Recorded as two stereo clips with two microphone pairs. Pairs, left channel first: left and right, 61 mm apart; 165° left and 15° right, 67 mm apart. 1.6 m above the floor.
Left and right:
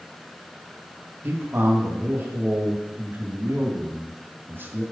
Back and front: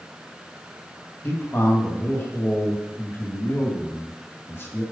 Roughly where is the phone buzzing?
I don't hear a phone buzzing.